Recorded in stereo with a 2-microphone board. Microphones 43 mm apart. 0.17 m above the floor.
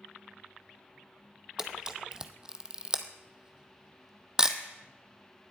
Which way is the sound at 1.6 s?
15° right (ahead or behind).